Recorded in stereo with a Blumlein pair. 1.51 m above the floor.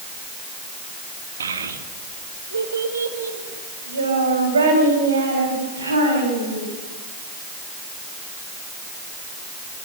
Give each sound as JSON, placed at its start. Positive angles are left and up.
{"t": 1.4, "sound": "a child speaking", "azimuth_deg": -70, "distance_m": 1.9}